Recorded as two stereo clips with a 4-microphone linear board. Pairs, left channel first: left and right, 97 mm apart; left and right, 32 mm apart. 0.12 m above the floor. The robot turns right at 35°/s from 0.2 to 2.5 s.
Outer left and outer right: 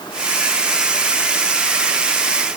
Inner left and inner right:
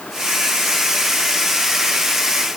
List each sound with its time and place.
Only background noise.